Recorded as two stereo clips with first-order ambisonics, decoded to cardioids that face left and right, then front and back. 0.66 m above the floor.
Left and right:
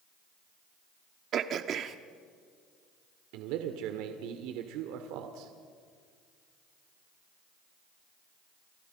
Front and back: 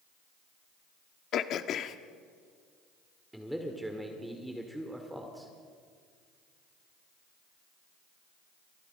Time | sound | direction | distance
1.3 | throat clearing | 40° right | 1.1 m
3.3 | a man speaking | 90° right | 1.9 m